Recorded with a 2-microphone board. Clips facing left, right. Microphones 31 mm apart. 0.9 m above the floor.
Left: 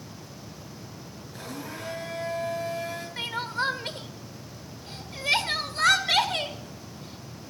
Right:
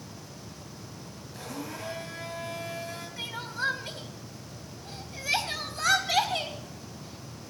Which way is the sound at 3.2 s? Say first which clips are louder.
Left 4 dB; 65° left (ahead or behind).